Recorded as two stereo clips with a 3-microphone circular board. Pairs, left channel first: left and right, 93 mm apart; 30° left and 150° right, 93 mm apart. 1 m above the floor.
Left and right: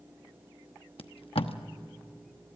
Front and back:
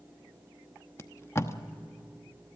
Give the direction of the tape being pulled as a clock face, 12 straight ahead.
9 o'clock.